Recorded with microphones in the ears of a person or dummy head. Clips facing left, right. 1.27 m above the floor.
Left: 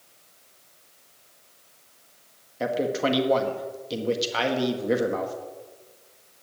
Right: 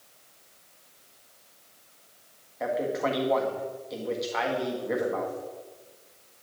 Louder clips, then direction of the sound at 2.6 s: Left 3 dB; 45° left (ahead or behind).